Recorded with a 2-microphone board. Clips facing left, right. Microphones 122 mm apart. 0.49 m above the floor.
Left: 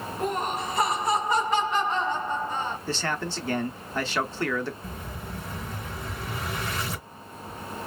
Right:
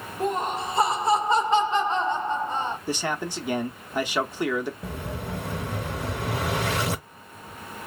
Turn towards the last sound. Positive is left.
turn(degrees=-75)  # may be behind; listen again after turning